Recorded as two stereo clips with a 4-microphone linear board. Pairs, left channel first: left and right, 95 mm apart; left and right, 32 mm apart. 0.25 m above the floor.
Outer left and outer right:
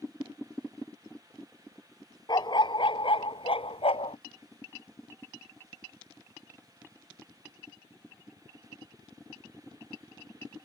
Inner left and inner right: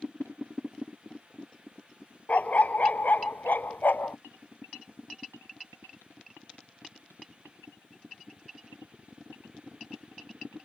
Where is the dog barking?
50° left (ahead or behind); by 4.2 s 85° left.